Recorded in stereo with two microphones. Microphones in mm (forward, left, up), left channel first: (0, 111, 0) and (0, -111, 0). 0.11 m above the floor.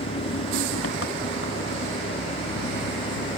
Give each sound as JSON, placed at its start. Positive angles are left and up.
{"t": 0.0, "sound": "an engine running", "side_deg": 85}